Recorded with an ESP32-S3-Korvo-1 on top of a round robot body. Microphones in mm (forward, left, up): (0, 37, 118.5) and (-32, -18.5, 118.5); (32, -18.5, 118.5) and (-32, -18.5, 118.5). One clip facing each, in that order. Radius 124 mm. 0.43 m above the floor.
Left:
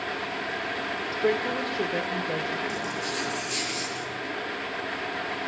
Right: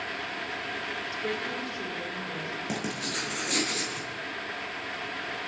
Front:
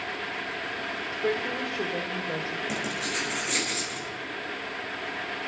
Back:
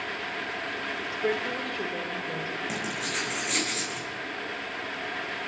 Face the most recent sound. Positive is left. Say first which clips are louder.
# left 2 dB, front 1 dB
turn(degrees=-90)